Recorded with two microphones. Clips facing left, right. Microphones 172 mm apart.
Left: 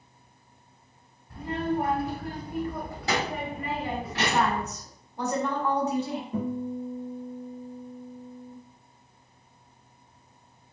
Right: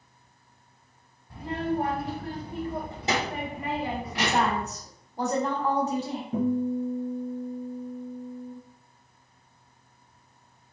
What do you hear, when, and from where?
1.3 s a child speaking: 30° right (ahead or behind), 1.1 m; by 4.7 s 10° right (ahead or behind), 2 m
4.1 s a woman speaking: 35° right (ahead or behind), 1.4 m
6.3 s a guitar: 60° right (ahead or behind), 1.6 m